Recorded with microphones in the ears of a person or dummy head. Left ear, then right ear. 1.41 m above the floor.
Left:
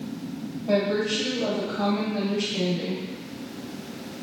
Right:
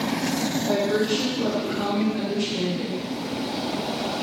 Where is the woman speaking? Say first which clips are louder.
Even; 20° left (ahead or behind), 1.0 m.